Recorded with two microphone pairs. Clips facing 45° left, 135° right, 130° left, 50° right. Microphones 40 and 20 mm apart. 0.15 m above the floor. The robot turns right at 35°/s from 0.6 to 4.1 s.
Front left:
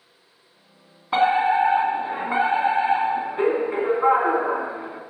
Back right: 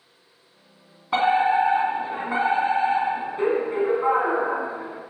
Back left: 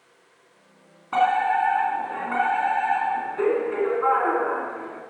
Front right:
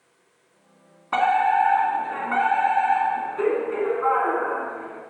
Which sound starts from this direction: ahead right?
A fire alarm, at 1.1 s.